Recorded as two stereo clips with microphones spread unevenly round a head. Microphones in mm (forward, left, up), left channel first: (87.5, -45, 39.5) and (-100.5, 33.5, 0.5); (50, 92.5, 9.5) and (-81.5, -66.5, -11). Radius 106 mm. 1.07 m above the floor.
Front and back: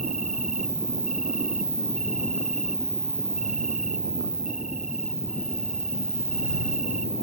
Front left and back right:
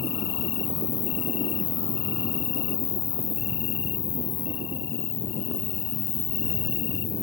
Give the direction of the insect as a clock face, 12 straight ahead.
9 o'clock.